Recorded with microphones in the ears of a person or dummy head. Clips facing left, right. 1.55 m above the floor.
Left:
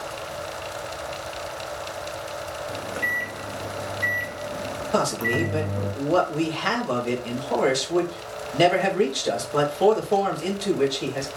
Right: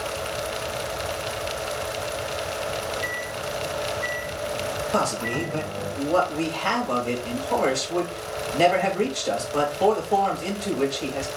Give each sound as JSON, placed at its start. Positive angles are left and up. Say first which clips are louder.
{"t": 2.7, "sound": "a microwave", "louder": "right 2 dB", "side_deg": 40, "distance_m": 0.7}
{"t": 4.9, "sound": "a man speaking", "louder": "left 4 dB", "side_deg": 25, "distance_m": 2.0}